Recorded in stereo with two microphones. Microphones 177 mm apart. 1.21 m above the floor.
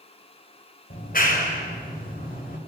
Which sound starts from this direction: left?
A clap, at 0.9 s.